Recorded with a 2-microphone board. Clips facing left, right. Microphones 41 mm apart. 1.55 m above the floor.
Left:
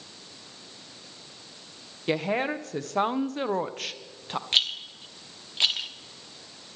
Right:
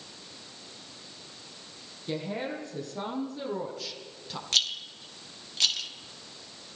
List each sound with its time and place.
2.1 s a woman speaking: 80° left, 1.6 m; by 4.4 s 40° left (ahead or behind), 1.0 m
4.5 s a rattle: 25° left (ahead or behind), 1.1 m